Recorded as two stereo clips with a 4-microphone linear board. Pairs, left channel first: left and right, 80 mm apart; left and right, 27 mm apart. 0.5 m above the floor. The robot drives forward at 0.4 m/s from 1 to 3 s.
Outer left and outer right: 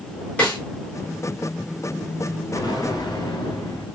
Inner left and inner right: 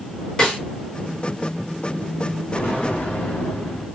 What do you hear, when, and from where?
0.4 s a snare drum: 20° left (ahead or behind), 3.5 m
2.5 s an explosion: 65° left (ahead or behind), 3 m